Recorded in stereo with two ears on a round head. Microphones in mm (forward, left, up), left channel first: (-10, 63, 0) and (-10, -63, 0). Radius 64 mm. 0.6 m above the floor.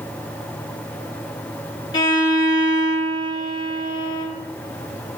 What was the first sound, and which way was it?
A violin, 30° left (ahead or behind).